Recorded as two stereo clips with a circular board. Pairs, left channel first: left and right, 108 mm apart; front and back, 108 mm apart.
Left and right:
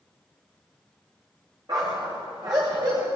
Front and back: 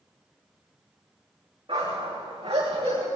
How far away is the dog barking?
About 6.5 m.